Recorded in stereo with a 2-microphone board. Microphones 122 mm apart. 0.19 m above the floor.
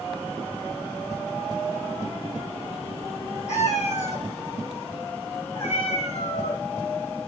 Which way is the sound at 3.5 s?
85° left.